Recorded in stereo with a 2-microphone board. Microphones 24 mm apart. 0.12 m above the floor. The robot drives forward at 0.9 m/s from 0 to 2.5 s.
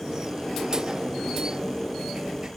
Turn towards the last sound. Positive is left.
No sound to turn to.